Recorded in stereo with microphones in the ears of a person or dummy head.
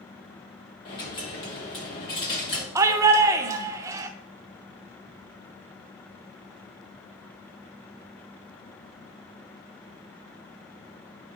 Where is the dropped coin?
30° left (ahead or behind), 1.3 m.